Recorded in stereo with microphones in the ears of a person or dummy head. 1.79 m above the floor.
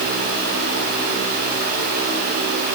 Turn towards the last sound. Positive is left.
No sound to turn to.